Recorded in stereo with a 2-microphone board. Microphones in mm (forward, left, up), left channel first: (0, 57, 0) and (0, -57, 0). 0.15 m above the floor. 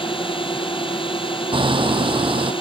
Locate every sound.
0.0 s a drone: 50° left (ahead or behind)
1.5 s hammering: 50° right (ahead or behind)